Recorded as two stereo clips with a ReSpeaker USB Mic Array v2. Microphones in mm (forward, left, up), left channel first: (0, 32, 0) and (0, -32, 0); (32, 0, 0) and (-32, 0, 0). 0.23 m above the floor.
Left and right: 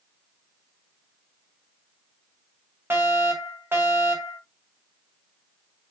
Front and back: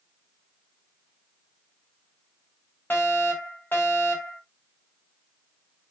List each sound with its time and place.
2.9 s a fire alarm: 45° right, 4 m